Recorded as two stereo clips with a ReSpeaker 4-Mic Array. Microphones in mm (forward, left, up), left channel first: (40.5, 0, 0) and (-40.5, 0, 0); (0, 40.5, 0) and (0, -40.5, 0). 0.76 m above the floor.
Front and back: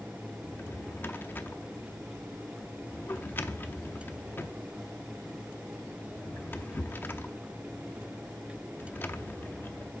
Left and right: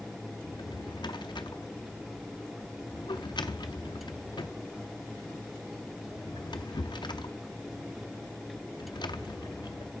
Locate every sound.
0.5 s a drawer: 65° left, 0.6 m